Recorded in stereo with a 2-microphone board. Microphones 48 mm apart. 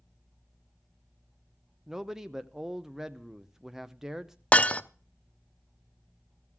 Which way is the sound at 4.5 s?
25° left (ahead or behind).